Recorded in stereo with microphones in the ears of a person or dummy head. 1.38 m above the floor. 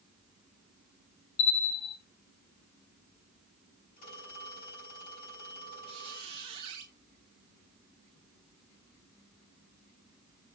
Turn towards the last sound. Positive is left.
turn(degrees=-30)  # may be behind; listen again after turning